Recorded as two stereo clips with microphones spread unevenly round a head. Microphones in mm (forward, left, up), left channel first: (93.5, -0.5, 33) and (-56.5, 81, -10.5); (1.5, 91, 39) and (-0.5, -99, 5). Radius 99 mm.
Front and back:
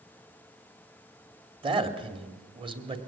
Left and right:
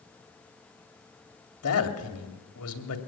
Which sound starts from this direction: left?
A man speaking, at 1.6 s.